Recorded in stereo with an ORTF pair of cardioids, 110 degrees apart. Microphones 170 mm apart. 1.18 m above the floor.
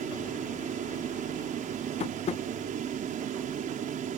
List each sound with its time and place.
0.0 s a fan: 50° right
2.0 s tapping: 40° left